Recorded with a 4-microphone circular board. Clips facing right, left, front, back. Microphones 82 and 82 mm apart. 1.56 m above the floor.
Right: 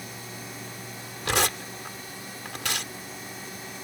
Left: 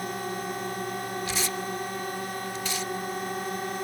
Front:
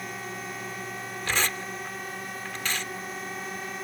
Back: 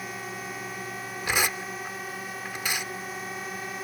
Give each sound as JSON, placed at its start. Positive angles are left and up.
{"t": 0.0, "sound": "a drone", "azimuth_deg": 90}
{"t": 1.2, "sound": "tearing paper", "azimuth_deg": -100}